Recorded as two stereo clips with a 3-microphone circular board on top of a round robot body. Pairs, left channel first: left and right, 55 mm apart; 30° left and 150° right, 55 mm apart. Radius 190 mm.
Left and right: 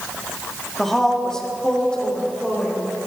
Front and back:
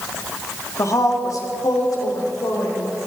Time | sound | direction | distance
0.8 | a woman speaking | 5° left | 2 m